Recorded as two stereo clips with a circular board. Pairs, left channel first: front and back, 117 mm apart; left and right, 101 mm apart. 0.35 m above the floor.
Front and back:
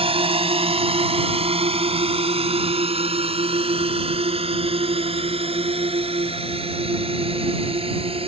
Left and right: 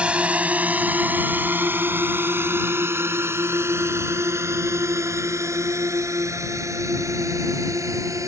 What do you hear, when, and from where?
0.0 s a drone: 165° right; by 8.3 s 145° right